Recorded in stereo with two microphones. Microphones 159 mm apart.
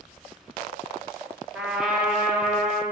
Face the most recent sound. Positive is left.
turn(degrees=-5)  # may be behind; listen again after turning